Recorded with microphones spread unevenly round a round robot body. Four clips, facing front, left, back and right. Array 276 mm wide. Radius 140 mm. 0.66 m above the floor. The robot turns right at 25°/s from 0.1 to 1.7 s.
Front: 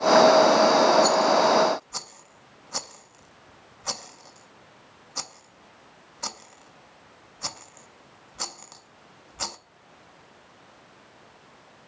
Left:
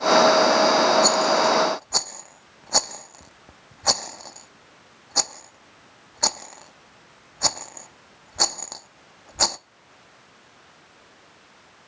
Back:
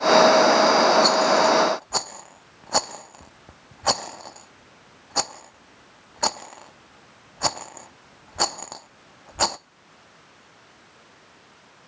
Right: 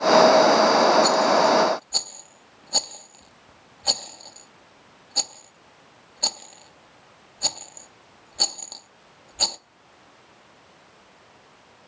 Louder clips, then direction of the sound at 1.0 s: Right 1 dB, back 1 dB; 135° left.